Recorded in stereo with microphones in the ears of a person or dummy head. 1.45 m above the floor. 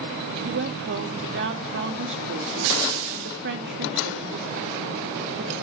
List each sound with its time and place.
0.5 s a woman speaking: 55° right (ahead or behind), 3 m